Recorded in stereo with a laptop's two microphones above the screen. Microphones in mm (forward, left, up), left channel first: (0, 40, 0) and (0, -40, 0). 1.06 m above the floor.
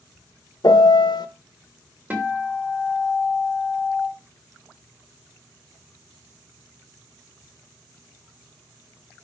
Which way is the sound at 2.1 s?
20° right (ahead or behind).